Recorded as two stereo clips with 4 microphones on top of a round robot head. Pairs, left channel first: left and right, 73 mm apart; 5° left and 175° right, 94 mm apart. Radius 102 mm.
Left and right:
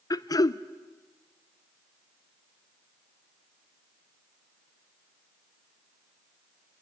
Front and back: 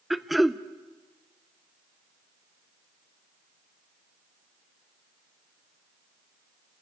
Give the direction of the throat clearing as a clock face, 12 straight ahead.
9 o'clock.